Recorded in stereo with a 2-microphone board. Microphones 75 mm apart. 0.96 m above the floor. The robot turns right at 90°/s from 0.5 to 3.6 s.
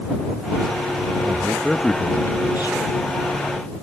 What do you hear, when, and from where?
1.2 s a man speaking: 45° right; by 2.8 s 95° left